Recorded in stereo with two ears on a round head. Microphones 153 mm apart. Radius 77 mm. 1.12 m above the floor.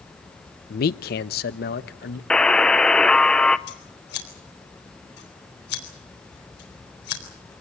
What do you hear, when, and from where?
0.7 s a man speaking: 55° left (ahead or behind), 0.6 m; by 2.2 s 60° left (ahead or behind), 1.4 m
2.3 s a buzzer: 5° left (ahead or behind), 0.6 m
3.7 s scissors: 70° left (ahead or behind), 4 m